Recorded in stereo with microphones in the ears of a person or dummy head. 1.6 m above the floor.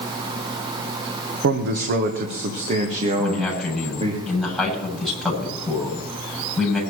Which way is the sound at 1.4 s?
65° right (ahead or behind).